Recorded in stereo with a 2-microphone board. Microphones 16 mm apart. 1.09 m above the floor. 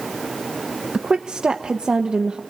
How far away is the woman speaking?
About 1.0 m.